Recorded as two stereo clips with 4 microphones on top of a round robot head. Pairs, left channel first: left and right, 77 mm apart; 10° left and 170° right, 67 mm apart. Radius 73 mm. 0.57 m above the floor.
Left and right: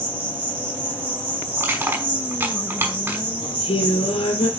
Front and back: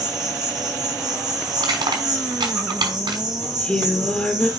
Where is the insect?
160° right, 4.5 m.